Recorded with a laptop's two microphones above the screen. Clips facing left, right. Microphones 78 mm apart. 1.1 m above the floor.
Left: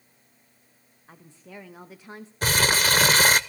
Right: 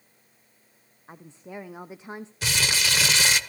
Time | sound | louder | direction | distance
1.1 | a woman speaking | right 5 dB | 25° right (ahead or behind) | 0.8 m
2.4 | crumpling | left 5 dB | 45° left (ahead or behind) | 0.8 m